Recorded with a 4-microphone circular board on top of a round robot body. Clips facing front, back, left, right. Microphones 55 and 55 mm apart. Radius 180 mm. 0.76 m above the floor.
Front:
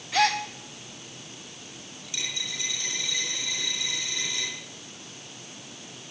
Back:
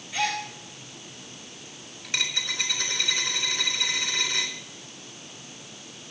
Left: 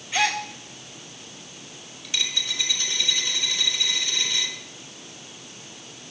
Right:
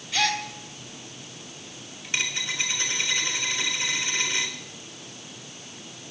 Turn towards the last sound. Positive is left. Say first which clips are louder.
# back 6 dB, right 1 dB
turn(degrees=-140)